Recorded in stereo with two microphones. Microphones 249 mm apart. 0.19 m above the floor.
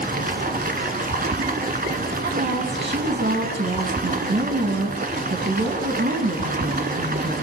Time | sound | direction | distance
0.0 | running water | 35° right (ahead or behind) | 1.1 m
2.2 | a woman speaking | 45° right (ahead or behind) | 2 m